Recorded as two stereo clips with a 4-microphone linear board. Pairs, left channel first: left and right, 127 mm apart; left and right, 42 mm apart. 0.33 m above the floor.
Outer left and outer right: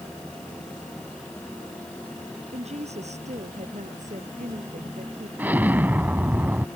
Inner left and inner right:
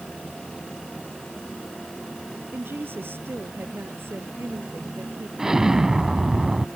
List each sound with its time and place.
2.5 s a woman speaking: 60° right (ahead or behind); by 5.3 s 80° right
5.4 s an explosion: 15° right (ahead or behind)